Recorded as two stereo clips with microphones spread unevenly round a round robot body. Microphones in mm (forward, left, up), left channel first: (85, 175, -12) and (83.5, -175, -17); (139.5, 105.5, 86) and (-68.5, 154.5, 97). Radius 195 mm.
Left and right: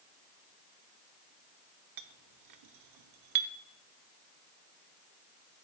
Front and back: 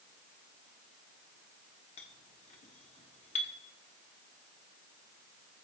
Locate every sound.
2.0 s a clink: 70° right, 1.0 m